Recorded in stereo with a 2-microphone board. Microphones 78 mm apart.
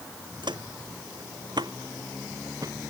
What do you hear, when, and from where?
0.4 s footsteps: 70° right (ahead or behind); by 2.9 s 45° right (ahead or behind)